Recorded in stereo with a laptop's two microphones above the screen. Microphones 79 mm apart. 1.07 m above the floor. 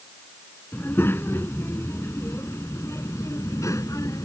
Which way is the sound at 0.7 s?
25° left (ahead or behind).